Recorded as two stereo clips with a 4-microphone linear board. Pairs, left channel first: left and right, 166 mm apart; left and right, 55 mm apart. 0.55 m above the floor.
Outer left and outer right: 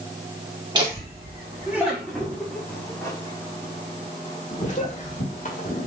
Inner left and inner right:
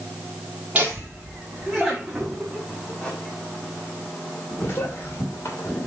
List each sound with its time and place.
0.8 s laughter: 25° right (ahead or behind), 1.6 m; by 5.9 s 55° left (ahead or behind), 2.5 m